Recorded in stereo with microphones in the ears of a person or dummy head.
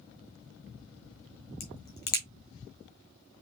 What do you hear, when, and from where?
1.6 s a crack: 25° left (ahead or behind), 1.3 m